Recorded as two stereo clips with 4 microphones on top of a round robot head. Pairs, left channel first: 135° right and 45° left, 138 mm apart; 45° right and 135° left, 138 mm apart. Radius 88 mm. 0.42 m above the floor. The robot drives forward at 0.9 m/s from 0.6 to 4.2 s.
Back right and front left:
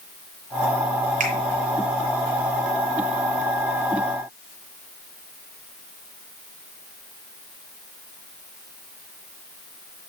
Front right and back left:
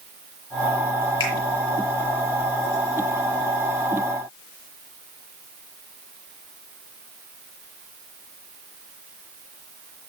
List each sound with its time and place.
1.2 s a finger snap: 10° left, 7 m